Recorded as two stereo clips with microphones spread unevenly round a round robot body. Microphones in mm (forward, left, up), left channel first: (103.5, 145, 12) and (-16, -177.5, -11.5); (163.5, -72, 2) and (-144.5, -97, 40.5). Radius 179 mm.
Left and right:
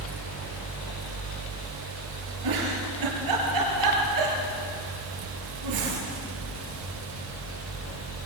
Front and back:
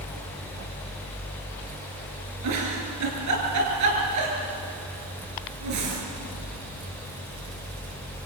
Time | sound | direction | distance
2.4 | a giggle | 145° right | 6 m